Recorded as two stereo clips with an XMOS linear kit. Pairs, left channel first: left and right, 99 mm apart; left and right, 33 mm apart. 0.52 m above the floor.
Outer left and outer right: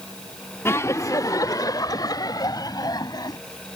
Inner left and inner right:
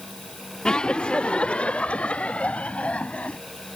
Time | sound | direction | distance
0.7 | laughter | 25° left (ahead or behind) | ?